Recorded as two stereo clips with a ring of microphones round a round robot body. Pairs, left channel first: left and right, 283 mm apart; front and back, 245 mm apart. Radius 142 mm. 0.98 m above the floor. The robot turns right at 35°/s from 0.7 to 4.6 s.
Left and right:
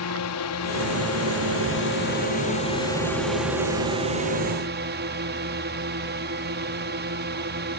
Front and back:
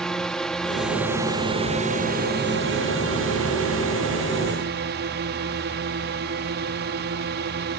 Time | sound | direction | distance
0.0 | a drone | 85° left | ?